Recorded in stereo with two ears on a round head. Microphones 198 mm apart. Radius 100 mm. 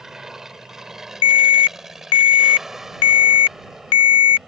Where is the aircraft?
5° right (ahead or behind); by 4.5 s centre (ahead or behind).